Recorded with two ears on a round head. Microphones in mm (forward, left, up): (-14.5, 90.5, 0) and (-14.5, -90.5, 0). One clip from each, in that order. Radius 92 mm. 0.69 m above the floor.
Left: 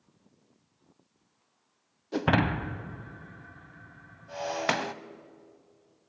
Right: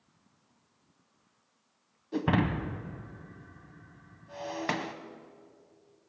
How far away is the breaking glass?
About 0.6 m.